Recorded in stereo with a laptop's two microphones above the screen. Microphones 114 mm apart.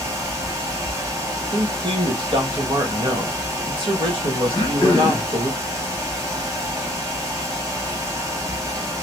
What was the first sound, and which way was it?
A fan, 25° right (ahead or behind).